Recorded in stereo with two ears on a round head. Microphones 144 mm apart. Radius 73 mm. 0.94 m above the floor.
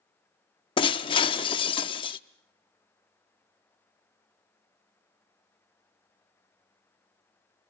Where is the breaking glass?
30° left (ahead or behind), 0.6 m.